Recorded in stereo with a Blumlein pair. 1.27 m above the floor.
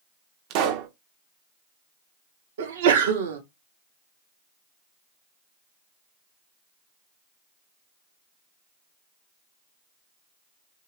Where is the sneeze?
60° right, 1.0 m.